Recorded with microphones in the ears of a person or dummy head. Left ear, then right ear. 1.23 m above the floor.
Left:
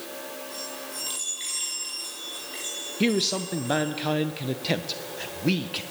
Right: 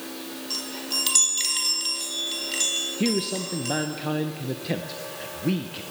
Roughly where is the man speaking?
Left.